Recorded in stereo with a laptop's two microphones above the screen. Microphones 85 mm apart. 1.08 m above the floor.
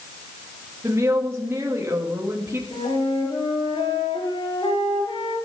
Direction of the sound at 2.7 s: 80° left.